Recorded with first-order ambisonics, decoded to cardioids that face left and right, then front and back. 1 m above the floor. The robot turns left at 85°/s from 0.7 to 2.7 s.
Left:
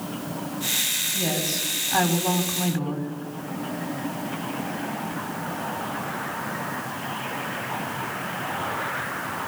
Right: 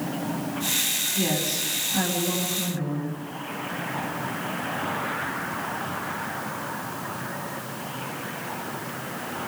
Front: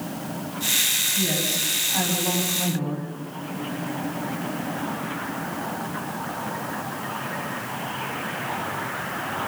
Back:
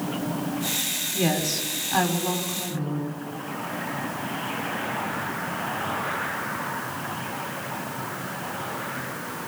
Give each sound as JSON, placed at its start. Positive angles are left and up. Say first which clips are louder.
{"t": 1.1, "sound": "a woman speaking", "louder": "even, front 1 dB", "azimuth_deg": 180, "distance_m": 6.0}